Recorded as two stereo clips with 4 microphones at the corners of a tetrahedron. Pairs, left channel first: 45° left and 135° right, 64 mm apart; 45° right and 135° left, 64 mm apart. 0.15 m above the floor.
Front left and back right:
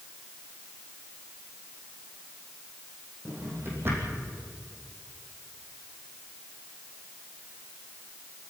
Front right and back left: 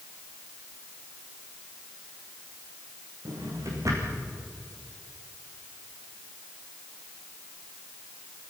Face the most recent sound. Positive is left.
turn(degrees=170)